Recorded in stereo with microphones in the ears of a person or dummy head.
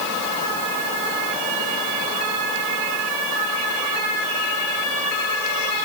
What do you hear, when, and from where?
Only background noise.